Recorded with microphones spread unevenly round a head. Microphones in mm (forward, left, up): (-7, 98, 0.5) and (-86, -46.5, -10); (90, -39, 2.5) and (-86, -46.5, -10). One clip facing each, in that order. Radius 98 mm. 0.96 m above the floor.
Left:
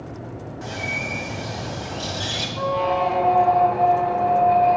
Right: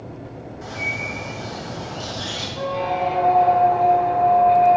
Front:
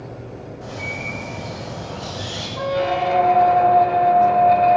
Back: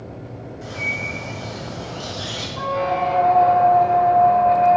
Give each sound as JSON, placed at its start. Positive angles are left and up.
{"t": 0.6, "sound": "a bird", "azimuth_deg": 120, "distance_m": 2.0}
{"t": 2.6, "sound": "a squeak", "azimuth_deg": -35, "distance_m": 0.7}